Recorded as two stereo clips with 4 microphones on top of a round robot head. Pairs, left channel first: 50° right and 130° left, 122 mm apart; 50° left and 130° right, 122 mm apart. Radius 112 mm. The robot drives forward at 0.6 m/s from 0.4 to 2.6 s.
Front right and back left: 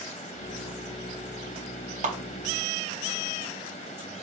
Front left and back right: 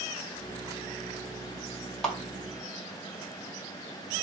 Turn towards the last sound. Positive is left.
turn(degrees=135)